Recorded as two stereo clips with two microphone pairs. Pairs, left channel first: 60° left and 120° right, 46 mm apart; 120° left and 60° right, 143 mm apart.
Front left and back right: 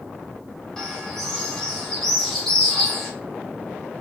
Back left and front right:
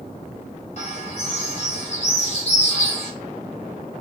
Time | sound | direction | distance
0.8 | a bird | 135° left | 0.8 m